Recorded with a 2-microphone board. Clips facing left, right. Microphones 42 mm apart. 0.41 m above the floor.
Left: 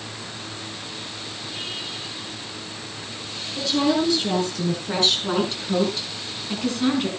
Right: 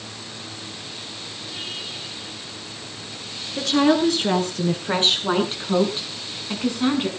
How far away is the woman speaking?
About 6 m.